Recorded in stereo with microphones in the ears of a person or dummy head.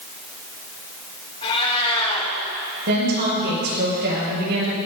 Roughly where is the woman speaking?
Right.